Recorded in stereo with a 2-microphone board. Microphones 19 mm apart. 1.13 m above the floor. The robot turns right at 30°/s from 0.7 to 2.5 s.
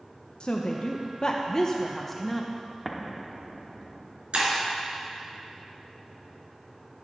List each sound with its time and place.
0.4 s a woman speaking: 125° left, 0.7 m; by 2.5 s straight behind, 0.7 m
2.9 s an explosion: 15° right (ahead or behind), 1.0 m
4.3 s breaking glass: 75° right (ahead or behind), 3.5 m